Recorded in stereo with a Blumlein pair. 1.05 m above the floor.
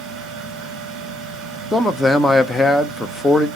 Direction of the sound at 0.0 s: 30° right.